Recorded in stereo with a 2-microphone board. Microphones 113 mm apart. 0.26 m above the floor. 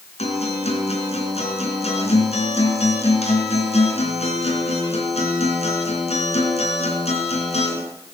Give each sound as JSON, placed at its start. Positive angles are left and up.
{"t": 0.2, "sound": "a guitar", "side_deg": 70, "distance_m": 3.5}